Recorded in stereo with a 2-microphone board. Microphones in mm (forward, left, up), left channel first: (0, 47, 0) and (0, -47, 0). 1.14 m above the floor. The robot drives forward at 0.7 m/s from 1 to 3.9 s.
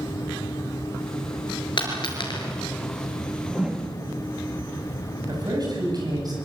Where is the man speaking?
45° right (ahead or behind), 9 m.